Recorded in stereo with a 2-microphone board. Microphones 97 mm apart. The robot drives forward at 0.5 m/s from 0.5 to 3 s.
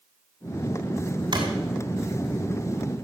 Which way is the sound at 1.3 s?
55° right (ahead or behind).